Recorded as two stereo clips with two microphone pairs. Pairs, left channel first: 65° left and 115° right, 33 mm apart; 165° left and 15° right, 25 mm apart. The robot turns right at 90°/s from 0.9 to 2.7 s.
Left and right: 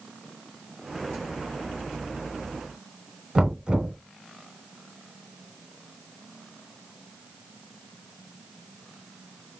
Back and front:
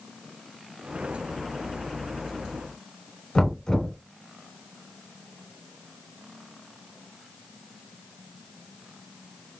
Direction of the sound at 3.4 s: 155° right.